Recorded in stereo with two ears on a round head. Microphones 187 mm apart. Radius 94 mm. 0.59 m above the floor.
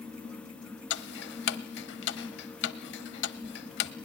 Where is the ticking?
55° left (ahead or behind), 0.7 m.